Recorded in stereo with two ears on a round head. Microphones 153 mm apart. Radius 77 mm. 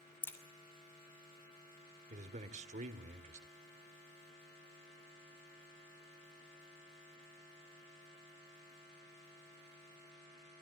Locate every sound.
0.2 s a crack: 15° left (ahead or behind), 2.5 m
2.1 s a man speaking: 45° right (ahead or behind), 1.7 m